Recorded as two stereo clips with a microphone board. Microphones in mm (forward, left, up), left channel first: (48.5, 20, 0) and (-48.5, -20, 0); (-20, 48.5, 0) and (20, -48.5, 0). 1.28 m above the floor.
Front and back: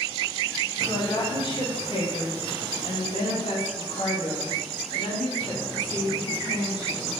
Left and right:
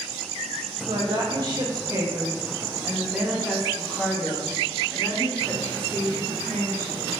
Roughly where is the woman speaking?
Ahead right.